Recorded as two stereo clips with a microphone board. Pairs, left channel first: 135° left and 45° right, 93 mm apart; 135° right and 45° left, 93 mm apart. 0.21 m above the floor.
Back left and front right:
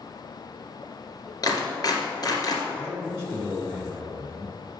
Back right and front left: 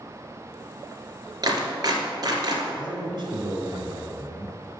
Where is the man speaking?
30° left, 1.7 m.